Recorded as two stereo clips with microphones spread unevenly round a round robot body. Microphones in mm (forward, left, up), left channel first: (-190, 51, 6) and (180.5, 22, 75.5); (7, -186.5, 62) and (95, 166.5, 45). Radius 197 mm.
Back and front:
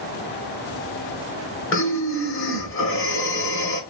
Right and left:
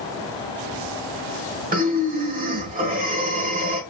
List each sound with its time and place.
1.7 s breathing: 135° left, 0.9 m